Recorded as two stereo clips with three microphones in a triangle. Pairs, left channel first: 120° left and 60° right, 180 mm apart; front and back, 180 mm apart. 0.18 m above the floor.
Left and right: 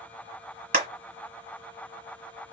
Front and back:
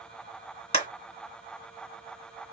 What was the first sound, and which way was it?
A clap, 40° right.